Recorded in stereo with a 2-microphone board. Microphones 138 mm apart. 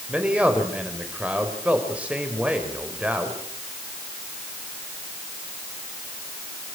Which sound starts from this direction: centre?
A man speaking, at 0.1 s.